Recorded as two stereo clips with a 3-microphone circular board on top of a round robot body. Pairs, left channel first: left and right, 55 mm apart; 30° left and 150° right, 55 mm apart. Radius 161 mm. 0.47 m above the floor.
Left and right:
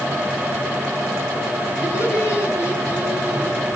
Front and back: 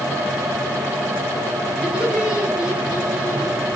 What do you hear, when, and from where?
1.8 s laughter: 130° left, 9.5 m